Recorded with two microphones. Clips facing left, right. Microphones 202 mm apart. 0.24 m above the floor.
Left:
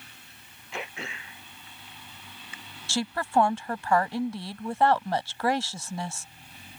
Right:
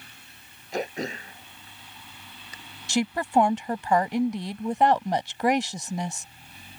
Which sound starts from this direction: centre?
A woman speaking, at 2.9 s.